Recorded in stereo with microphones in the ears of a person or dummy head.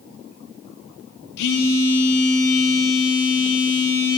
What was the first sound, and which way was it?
A phone buzzing, 55° left (ahead or behind).